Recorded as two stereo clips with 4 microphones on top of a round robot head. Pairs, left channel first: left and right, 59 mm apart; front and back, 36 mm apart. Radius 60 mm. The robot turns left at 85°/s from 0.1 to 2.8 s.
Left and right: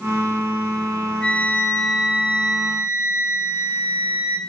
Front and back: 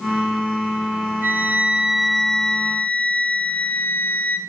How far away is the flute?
About 3 m.